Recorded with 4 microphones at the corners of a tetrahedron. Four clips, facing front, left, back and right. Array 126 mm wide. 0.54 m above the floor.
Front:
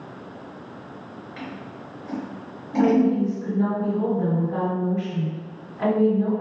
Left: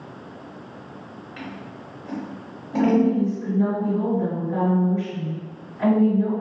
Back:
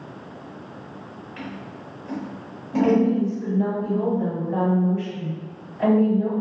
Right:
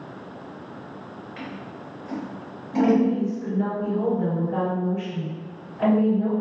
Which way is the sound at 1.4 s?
120° left.